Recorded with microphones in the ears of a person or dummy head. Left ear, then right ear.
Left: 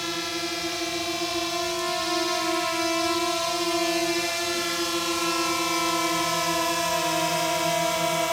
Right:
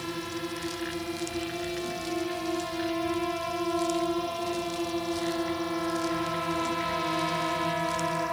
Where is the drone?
60° left (ahead or behind); by 8.3 s 65° left (ahead or behind).